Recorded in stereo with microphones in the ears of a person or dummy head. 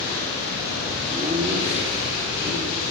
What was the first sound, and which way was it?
Laughter, 15° right (ahead or behind).